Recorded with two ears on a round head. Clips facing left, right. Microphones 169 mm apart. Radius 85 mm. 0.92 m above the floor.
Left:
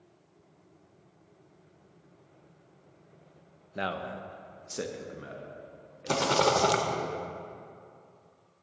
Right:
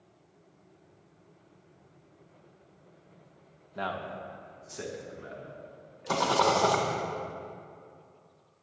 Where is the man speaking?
25° left (ahead or behind), 0.5 m; by 7.1 s 60° left (ahead or behind), 2 m.